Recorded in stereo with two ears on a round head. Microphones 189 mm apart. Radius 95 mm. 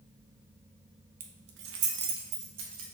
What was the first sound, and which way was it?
Keys jangling, 40° right (ahead or behind).